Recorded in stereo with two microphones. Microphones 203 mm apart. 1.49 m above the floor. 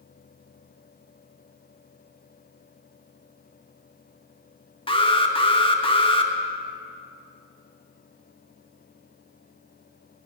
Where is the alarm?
25° left (ahead or behind), 1.2 m.